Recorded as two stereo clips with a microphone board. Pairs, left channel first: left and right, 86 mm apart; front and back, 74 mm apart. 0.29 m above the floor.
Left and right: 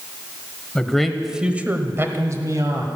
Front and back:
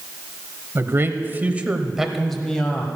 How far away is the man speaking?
About 1.1 m.